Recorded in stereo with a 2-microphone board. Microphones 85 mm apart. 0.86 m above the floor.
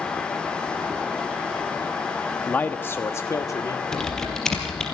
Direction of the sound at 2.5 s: 15° left (ahead or behind).